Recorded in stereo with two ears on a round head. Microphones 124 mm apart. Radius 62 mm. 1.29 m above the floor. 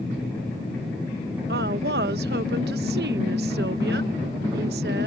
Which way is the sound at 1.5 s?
85° right.